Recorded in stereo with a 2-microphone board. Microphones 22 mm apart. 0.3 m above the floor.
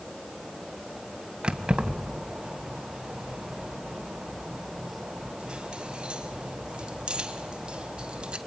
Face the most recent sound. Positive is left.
turn(degrees=-50)  # may be behind; listen again after turning